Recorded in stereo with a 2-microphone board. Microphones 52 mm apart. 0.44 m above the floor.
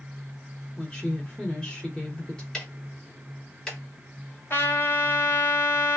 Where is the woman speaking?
15° left (ahead or behind), 1.1 m.